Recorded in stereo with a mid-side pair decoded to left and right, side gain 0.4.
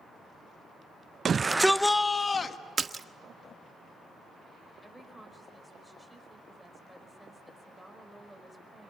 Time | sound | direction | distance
1.2 | a shout | 50° right | 0.8 m
2.8 | a splash | 40° right | 1.0 m
4.8 | a woman speaking | 5° right | 5.5 m